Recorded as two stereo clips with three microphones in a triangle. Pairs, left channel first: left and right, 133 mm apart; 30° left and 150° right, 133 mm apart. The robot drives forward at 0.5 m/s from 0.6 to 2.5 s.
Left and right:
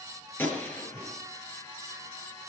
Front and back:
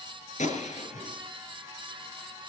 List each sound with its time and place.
0.4 s a gunshot: 15° left, 5.5 m; by 1.1 s 20° left, 5.5 m